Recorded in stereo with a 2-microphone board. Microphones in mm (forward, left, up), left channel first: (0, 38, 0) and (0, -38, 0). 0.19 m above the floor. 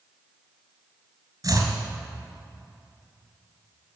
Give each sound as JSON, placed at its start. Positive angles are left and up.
{"t": 1.4, "sound": "chopping", "side_deg": -45, "distance_m": 2.5}